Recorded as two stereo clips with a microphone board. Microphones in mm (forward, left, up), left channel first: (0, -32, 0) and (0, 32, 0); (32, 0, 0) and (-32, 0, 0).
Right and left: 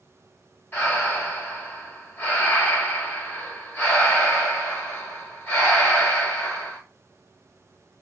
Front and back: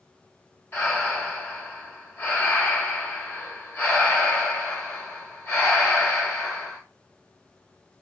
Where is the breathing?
45° right, 1.1 m.